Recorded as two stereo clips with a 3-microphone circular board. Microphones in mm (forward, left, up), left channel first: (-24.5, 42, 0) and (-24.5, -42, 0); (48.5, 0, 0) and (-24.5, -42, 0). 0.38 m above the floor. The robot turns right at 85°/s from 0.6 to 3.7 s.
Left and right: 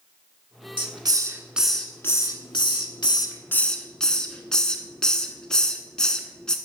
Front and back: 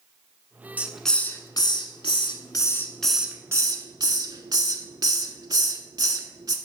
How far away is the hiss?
About 0.9 m.